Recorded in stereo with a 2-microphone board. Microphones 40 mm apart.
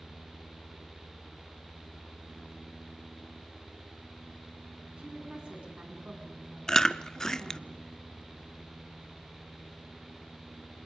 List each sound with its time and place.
5.0 s a woman speaking: 25° right (ahead or behind), 8 m
6.7 s chewing: 15° left (ahead or behind), 0.6 m